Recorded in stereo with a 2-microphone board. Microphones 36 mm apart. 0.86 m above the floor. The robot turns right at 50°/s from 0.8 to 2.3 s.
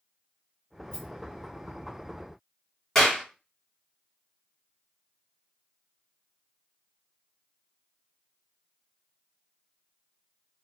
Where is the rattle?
25° left (ahead or behind), 1.2 m; by 1.1 s 30° left (ahead or behind), 1.2 m.